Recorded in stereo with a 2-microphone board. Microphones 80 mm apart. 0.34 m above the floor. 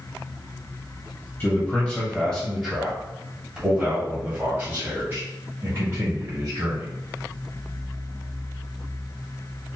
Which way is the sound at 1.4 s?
25° left (ahead or behind).